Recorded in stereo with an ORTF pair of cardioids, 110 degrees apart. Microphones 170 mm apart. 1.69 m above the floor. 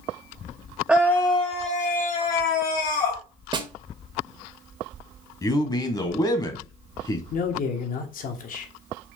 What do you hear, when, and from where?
0.9 s a scream: 5° right, 0.5 m; by 3.2 s 70° left, 1.8 m
3.5 s a snare drum: 30° right, 0.8 m
5.4 s a man speaking: 25° left, 1.1 m
7.3 s a man speaking: 55° left, 1.2 m